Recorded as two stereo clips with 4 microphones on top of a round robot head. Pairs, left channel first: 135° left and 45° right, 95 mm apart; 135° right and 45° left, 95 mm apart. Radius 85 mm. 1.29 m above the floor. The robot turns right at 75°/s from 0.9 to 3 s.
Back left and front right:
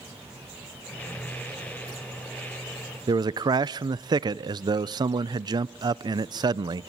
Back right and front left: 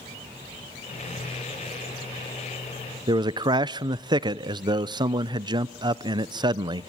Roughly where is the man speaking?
Ahead.